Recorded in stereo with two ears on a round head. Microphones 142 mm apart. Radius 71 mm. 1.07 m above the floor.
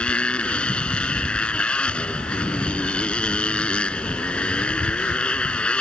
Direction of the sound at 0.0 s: 5° left (ahead or behind).